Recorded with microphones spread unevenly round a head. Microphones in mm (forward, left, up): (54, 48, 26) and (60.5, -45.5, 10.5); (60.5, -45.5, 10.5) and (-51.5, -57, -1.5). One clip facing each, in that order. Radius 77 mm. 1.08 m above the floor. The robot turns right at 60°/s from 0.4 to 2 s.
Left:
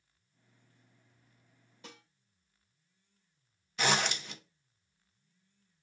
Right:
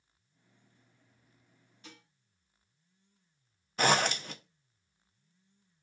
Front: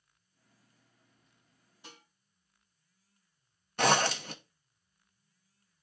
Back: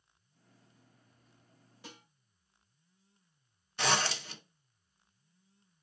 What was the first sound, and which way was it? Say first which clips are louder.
Dishes clattering: left 2 dB, back 3 dB; 130° left.